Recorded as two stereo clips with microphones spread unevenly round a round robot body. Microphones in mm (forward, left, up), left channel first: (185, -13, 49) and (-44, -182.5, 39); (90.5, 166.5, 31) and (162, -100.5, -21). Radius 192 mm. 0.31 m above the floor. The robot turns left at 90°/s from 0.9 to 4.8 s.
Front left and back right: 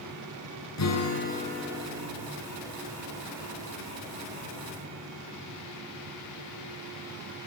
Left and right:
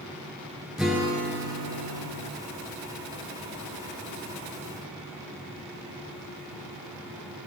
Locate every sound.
0.8 s a guitar: 10° left, 5.5 m; by 2.3 s 115° right, 5.5 m